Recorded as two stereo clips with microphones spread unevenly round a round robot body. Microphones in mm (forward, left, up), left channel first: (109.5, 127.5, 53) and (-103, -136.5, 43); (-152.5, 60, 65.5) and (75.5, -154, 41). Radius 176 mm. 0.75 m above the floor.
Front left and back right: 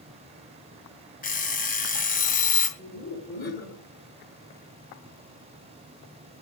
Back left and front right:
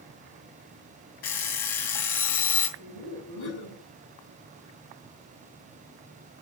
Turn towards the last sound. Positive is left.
turn(degrees=115)